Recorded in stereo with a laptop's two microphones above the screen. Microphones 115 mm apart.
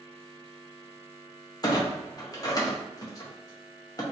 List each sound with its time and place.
1.6 s a clunk: 35° left (ahead or behind), 0.6 m